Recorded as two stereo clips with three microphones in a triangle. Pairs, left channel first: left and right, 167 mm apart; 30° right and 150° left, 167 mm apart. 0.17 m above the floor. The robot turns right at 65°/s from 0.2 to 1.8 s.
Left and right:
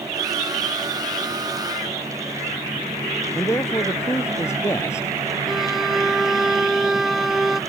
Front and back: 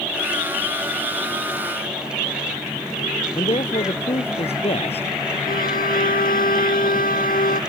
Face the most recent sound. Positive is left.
turn(degrees=0)